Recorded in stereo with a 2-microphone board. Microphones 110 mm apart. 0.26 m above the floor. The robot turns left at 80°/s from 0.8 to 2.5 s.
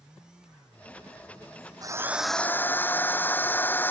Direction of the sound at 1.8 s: 145° right.